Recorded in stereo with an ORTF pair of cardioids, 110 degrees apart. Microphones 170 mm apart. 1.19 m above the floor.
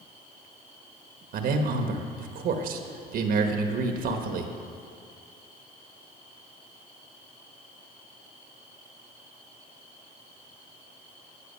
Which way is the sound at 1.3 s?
60° right.